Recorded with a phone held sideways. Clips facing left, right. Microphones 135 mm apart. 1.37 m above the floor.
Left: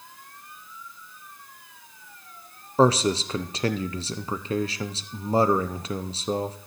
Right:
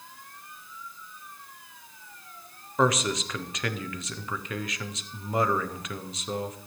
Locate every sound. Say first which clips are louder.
2.8 s a man speaking: left 5 dB; 30° left (ahead or behind), 0.7 m